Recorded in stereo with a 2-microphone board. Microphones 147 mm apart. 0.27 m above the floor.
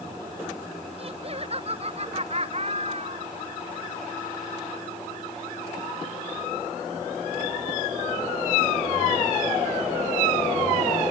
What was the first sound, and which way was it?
Laughter, 45° right (ahead or behind).